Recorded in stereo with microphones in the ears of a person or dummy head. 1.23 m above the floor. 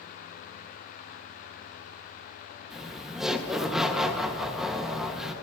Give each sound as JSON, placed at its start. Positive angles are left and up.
{"t": 2.7, "sound": "laughter", "side_deg": -5, "distance_m": 1.6}